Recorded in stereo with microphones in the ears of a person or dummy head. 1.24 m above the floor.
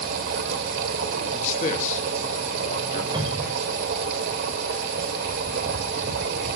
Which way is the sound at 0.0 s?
65° right (ahead or behind).